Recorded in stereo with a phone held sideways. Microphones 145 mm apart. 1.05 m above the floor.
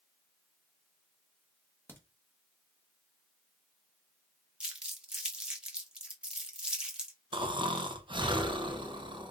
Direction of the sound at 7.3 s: 35° right (ahead or behind).